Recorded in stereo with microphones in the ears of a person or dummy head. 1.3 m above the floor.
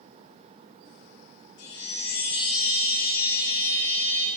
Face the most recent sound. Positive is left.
turn(degrees=65)  # may be behind; listen again after turning